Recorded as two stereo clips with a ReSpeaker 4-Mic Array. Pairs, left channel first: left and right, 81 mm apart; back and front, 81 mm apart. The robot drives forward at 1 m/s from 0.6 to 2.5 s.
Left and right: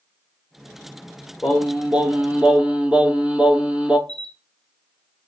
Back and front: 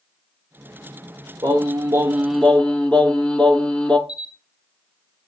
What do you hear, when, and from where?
1.4 s singing: 10° right, 1.0 m; by 4.0 s 135° right, 0.5 m
4.1 s a camera shutter: 170° left, 3 m